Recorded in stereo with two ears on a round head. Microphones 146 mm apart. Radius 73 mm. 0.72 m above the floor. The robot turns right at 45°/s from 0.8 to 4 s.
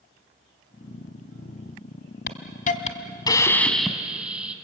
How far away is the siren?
I don't hear a siren.